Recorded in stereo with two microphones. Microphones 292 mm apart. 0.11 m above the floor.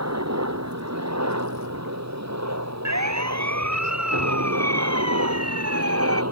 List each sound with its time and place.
0.0 s a helicopter: 65° right (ahead or behind); by 6.3 s 60° right (ahead or behind)
2.9 s a siren: 70° right (ahead or behind); by 6.2 s 55° right (ahead or behind)